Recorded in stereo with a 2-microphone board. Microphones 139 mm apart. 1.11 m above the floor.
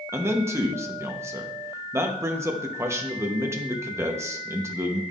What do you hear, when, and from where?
0.1 s a man speaking: 20° right (ahead or behind), 1.0 m